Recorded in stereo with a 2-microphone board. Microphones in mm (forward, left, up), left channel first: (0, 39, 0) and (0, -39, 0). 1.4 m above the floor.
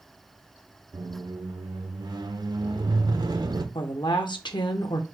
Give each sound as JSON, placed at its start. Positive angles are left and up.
{"t": 0.9, "sound": "a squeak", "side_deg": -65, "distance_m": 0.6}
{"t": 3.8, "sound": "a woman speaking", "side_deg": 80, "distance_m": 0.8}